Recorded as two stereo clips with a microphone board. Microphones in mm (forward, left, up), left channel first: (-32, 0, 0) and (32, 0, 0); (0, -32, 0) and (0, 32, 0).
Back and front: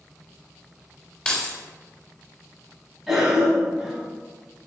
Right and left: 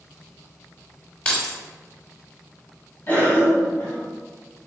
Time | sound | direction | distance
1.2 | keys jangling | 140° right | 0.8 m
3.1 | a cough | 75° right | 1.3 m